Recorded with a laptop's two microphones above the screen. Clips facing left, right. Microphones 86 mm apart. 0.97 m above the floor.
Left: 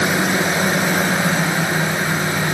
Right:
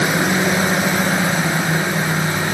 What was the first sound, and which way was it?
Only background noise.